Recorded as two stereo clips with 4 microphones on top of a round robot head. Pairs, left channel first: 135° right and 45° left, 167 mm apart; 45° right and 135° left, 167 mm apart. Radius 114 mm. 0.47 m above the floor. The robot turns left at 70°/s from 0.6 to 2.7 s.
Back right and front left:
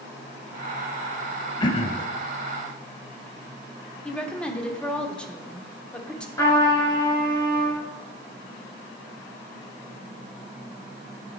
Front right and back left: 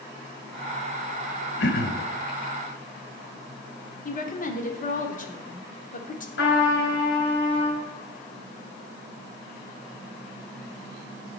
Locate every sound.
1.6 s throat clearing: 70° right, 0.6 m; by 2.1 s 100° right, 0.6 m
4.0 s a woman speaking: 55° right, 1.2 m
6.4 s a trumpet: 60° right, 3.5 m